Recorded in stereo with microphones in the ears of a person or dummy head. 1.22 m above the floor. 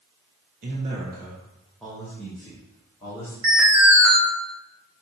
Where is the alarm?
5° right (ahead or behind), 1.3 m.